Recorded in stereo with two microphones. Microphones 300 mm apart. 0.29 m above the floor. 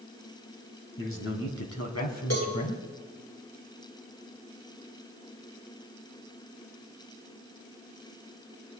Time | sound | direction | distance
1.0 | a man speaking | 45° left (ahead or behind) | 2.5 m
2.3 | a cowbell | 55° left (ahead or behind) | 3.5 m